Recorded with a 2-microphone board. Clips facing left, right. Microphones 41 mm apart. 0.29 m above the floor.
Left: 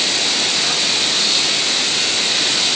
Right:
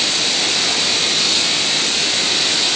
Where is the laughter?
No laughter in this recording.